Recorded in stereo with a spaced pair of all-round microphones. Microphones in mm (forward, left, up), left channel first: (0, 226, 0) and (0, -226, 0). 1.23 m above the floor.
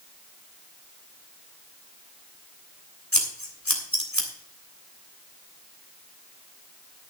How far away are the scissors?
About 3 m.